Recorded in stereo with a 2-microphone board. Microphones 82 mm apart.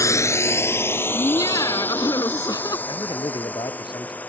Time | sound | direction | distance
0.0 | a drone | 40° left (ahead or behind) | ?
1.1 | laughter | 50° left (ahead or behind) | ?
2.9 | a man speaking | 70° left (ahead or behind) | ?